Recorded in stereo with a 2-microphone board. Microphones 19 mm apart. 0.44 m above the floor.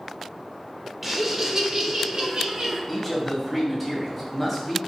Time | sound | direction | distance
1.0 | laughter | 10° right (ahead or behind) | 1.3 m
2.9 | a man speaking | centre (ahead or behind) | 2.5 m